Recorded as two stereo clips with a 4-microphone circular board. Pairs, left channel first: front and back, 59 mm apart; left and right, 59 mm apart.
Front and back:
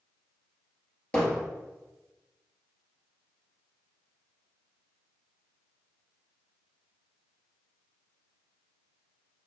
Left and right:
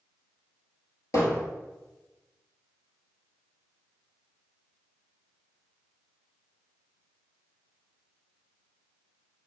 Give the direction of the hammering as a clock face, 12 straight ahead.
10 o'clock.